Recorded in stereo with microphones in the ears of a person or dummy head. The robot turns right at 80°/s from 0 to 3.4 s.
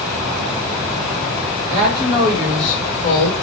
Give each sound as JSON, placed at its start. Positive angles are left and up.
{"t": 1.7, "sound": "a woman speaking", "azimuth_deg": -70, "distance_m": 1.7}